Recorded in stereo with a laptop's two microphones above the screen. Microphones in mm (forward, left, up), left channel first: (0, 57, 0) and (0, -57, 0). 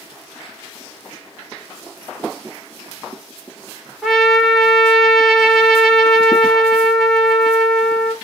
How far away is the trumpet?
About 0.7 m.